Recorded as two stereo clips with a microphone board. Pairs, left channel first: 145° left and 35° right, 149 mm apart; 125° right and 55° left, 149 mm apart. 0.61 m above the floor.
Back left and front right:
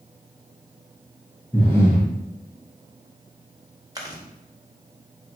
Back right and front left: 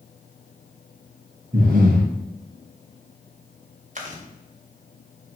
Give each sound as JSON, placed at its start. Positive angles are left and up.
{"t": 1.5, "sound": "breathing", "azimuth_deg": 70, "distance_m": 2.5}
{"t": 4.0, "sound": "chewing", "azimuth_deg": 30, "distance_m": 1.6}